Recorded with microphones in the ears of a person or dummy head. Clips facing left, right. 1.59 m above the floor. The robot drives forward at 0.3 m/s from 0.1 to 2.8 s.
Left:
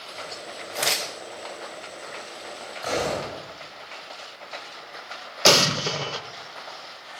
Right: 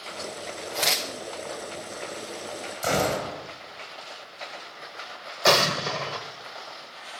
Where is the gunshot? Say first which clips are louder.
Right 1 dB; 40° right (ahead or behind), 4.5 m.